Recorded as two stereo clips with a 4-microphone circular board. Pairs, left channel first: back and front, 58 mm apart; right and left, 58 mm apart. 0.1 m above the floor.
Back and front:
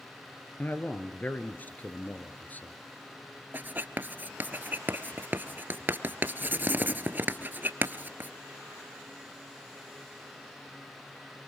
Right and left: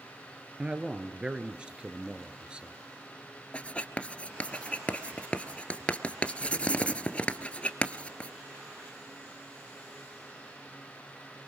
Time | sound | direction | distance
0.6 | a man speaking | 150° left | 1.5 m
3.5 | writing | 35° right | 1.2 m